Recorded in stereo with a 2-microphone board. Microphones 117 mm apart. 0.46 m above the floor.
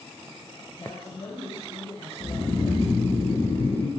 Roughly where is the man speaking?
Left.